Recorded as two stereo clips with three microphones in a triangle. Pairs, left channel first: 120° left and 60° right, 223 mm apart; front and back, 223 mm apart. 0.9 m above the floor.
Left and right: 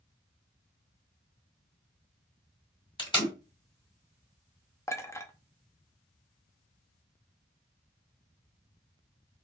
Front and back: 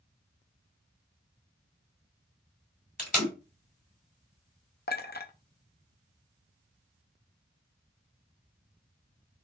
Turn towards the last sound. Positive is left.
turn(degrees=45)